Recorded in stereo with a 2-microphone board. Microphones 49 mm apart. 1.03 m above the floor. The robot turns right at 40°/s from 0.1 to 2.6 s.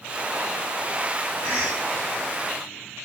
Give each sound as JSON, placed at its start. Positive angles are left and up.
{"t": 1.4, "sound": "a cough", "side_deg": 70, "distance_m": 2.5}